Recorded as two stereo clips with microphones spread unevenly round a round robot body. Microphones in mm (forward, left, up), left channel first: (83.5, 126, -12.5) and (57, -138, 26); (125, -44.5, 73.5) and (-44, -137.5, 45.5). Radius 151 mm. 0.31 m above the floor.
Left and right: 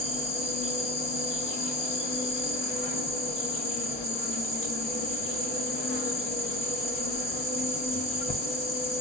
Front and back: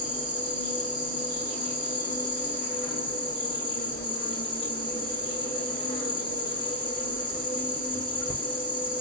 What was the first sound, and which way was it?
An insect, 65° left.